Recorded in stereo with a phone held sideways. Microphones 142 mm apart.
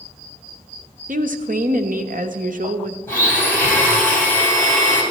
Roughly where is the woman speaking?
Right.